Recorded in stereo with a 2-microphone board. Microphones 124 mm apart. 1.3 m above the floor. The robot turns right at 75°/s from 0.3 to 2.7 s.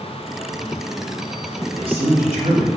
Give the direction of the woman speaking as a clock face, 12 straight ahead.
5 o'clock.